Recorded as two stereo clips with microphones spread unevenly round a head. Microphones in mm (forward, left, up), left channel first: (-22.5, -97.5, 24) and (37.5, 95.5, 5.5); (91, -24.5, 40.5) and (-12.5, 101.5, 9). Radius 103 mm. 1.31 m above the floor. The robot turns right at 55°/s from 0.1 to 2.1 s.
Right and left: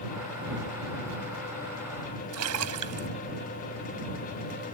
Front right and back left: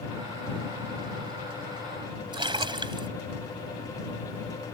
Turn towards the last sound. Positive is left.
turn(degrees=65)